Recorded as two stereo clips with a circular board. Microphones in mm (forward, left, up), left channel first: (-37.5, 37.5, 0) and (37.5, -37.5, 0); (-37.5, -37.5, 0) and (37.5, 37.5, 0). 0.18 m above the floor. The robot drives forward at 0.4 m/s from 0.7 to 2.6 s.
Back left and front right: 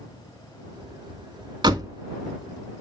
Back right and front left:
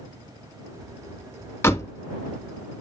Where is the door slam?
75° right, 1.0 m; by 1.9 s 85° right, 1.0 m.